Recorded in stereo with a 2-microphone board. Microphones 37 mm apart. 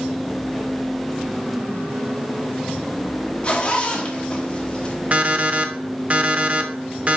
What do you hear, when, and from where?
3.4 s a zipper: 30° left (ahead or behind), 1.2 m
5.1 s an alarm clock: 40° right (ahead or behind), 0.8 m